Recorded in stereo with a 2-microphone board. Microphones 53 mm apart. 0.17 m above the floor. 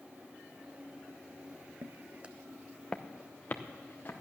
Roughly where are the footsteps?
Right.